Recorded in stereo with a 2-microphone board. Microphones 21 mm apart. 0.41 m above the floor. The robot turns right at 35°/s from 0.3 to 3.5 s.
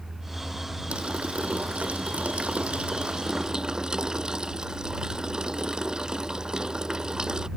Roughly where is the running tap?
Behind right.